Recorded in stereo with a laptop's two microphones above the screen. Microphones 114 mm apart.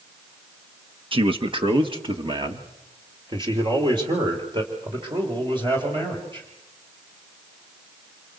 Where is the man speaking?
45° right (ahead or behind), 1.1 m; by 6.5 s 40° right (ahead or behind), 5 m.